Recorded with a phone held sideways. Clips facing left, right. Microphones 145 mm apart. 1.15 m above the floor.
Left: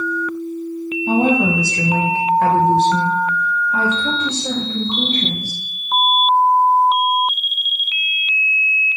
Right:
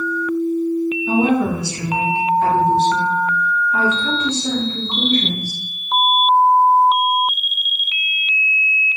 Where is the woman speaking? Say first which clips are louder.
Left 2 dB; 40° left (ahead or behind), 0.9 m; by 5.6 s 15° left (ahead or behind), 2.5 m.